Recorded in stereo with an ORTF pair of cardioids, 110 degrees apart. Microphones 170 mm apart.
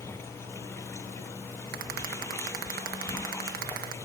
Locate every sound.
0.0 s running water: 15° left
1.7 s a rattle: 65° right